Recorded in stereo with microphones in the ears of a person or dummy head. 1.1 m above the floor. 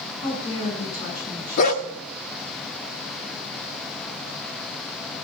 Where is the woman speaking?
20° left (ahead or behind), 8 m.